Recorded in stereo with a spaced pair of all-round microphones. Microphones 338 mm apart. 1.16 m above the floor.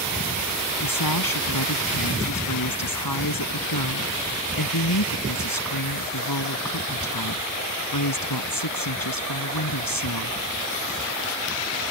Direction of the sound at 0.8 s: 85° left.